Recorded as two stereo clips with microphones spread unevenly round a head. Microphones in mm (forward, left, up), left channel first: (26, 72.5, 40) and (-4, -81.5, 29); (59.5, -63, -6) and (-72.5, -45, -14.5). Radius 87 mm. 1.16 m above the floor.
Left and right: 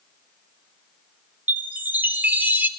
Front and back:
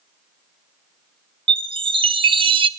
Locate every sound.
1.5 s a chime: straight behind, 0.9 m